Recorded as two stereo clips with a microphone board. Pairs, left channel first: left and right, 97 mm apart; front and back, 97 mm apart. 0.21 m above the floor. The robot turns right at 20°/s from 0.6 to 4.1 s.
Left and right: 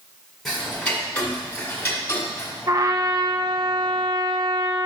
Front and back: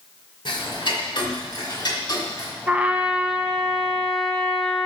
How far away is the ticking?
About 2.0 m.